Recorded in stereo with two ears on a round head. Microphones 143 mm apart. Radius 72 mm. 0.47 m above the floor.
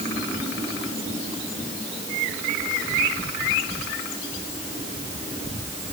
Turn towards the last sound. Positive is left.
No sound to turn to.